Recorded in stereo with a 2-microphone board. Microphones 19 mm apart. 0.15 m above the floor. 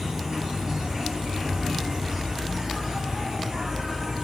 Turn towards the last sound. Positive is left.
turn(degrees=-30)  # may be behind; listen again after turning